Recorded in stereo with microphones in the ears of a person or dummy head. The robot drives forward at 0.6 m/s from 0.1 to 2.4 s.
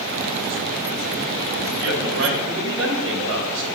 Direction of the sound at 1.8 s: 55° right (ahead or behind).